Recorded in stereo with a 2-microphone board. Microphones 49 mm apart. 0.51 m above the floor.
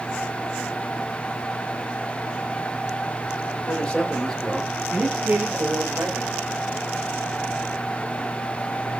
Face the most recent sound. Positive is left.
turn(degrees=-50)  # may be behind; listen again after turning